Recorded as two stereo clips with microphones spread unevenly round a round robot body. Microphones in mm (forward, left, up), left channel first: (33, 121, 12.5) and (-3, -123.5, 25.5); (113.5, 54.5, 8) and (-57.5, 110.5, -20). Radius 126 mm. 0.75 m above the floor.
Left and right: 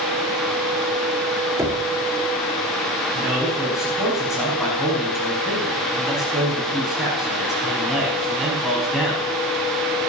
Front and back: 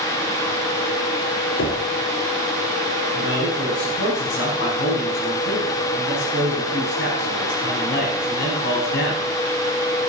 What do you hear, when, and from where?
1.6 s knocking: 20° right, 1.7 m
3.1 s a man speaking: 10° right, 5.5 m